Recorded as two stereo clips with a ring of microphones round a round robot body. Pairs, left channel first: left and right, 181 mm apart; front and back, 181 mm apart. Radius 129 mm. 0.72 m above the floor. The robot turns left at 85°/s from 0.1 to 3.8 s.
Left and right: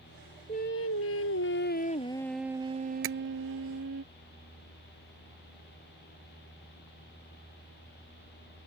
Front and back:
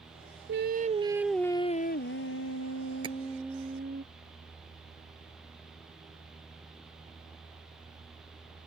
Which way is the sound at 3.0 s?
105° right.